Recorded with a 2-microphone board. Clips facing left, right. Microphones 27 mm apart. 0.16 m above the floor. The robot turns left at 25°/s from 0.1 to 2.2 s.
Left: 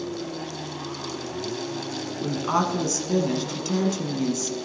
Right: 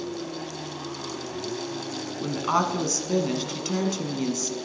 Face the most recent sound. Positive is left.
turn(degrees=-15)  # may be behind; listen again after turning